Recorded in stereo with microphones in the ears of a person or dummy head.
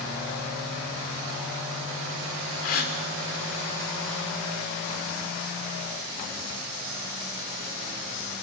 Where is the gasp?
50° left (ahead or behind), 1.9 m.